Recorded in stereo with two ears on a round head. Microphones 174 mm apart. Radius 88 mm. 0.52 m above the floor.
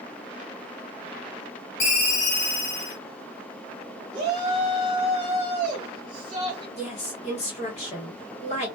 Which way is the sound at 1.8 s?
40° left (ahead or behind).